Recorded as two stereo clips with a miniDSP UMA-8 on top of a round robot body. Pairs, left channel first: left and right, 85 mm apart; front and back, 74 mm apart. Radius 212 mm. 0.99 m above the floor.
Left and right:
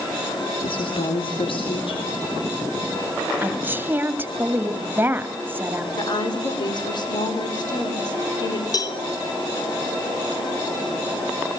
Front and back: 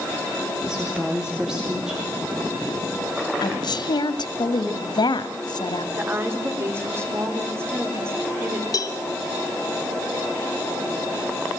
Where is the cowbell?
40° left, 2 m.